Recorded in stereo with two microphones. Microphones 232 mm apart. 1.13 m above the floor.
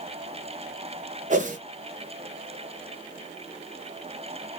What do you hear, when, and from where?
1.3 s a whoosh: 35° right (ahead or behind), 0.6 m